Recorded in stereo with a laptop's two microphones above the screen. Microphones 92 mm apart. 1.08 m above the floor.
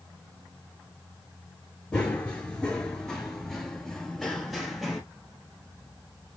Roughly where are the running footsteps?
Centre.